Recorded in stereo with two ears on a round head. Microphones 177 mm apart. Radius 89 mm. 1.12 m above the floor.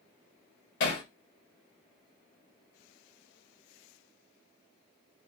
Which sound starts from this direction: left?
Hammering, at 0.8 s.